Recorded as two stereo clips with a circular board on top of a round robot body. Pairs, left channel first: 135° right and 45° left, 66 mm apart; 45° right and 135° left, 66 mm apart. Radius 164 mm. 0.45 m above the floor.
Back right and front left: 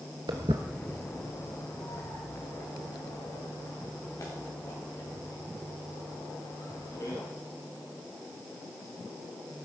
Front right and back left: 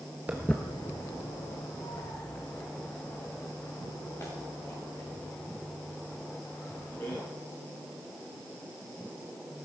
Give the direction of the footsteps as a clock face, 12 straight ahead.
10 o'clock.